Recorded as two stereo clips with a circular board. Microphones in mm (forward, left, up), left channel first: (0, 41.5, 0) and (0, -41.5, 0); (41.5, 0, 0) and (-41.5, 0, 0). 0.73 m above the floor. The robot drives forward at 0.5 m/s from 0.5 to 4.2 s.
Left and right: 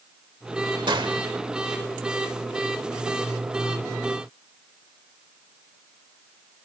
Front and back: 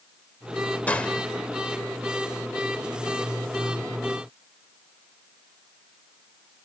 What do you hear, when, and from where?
0.9 s a gunshot: 70° right, 1.1 m; by 1.2 s 80° right, 1.1 m